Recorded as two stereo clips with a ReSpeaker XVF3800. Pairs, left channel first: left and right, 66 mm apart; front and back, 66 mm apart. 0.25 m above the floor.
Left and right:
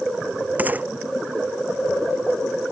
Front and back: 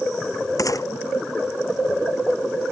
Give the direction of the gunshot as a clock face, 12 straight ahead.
1 o'clock.